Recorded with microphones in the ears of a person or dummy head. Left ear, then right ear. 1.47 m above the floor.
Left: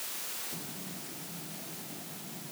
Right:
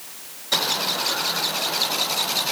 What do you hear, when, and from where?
Only background noise.